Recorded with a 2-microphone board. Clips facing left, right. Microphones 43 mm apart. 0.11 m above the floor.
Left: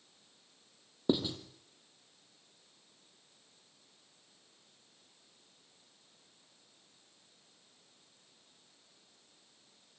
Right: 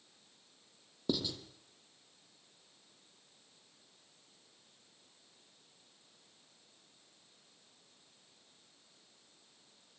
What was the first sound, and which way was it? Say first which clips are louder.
Writing: left 5 dB; 25° left (ahead or behind).